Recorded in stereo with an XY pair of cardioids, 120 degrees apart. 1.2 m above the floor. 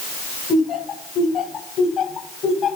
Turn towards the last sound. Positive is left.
turn(degrees=55)